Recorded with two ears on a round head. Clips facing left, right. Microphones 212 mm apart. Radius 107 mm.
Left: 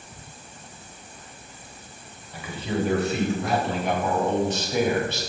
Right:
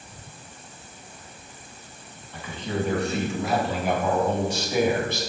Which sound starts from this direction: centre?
A man speaking, at 2.3 s.